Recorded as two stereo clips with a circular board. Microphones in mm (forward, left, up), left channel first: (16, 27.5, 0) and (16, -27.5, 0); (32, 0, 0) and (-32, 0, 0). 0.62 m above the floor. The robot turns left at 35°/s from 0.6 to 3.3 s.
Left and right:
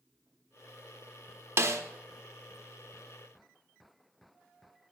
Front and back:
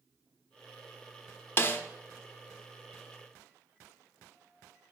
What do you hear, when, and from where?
1.6 s a snare drum: 55° right, 0.7 m; by 1.8 s 60° right, 0.7 m